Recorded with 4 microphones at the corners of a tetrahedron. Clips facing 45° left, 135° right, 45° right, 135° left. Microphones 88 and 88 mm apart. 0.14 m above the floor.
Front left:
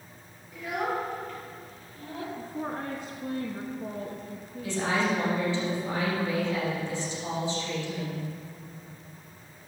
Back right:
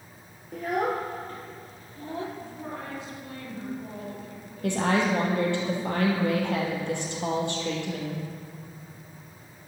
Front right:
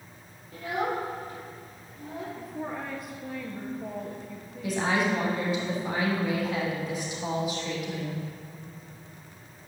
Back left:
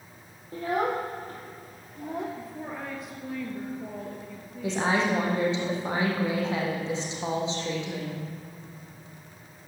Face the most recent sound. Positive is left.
turn(degrees=-160)